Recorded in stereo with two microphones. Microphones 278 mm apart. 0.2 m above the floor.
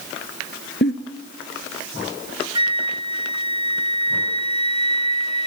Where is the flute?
25° left (ahead or behind), 0.6 m.